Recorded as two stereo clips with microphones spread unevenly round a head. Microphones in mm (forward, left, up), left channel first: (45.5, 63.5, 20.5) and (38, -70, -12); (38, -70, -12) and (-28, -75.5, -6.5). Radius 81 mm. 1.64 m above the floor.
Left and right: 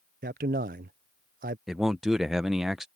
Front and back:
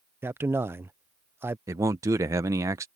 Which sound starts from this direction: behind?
A man speaking, at 1.7 s.